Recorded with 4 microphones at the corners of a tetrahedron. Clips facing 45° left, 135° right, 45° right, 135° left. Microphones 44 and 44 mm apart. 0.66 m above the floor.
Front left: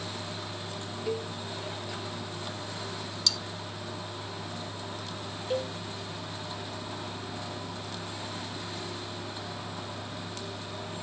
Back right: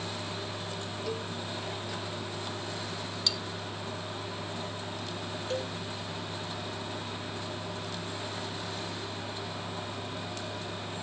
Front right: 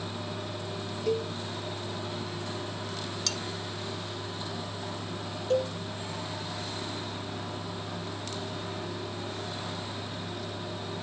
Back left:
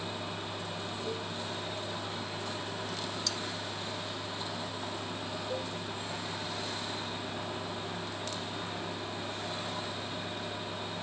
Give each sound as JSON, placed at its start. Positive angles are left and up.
{"t": 1.1, "sound": "a cowbell", "azimuth_deg": -30}
{"t": 3.3, "sound": "cutlery clinking", "azimuth_deg": -65}
{"t": 5.5, "sound": "a cowbell", "azimuth_deg": -35}